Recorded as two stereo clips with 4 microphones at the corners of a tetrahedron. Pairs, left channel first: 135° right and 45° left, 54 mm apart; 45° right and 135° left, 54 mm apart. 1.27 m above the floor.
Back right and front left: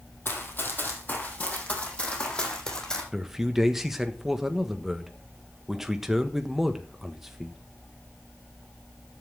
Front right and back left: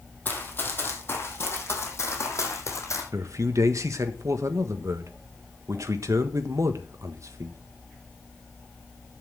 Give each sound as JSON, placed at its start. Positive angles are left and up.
{"t": 0.2, "sound": "running footsteps", "azimuth_deg": -95, "distance_m": 3.0}
{"t": 3.1, "sound": "a man speaking", "azimuth_deg": 130, "distance_m": 1.4}